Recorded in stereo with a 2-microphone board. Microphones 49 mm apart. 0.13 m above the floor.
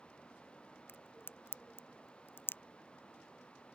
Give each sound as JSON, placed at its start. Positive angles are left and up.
{"t": 0.9, "sound": "a crack", "side_deg": 50}